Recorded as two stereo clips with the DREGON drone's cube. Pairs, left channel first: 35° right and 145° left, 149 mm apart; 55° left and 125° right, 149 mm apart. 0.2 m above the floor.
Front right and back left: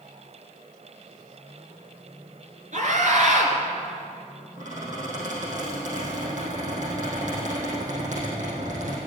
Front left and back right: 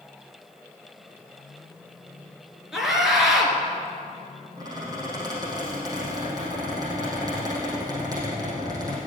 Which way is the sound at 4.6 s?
170° left.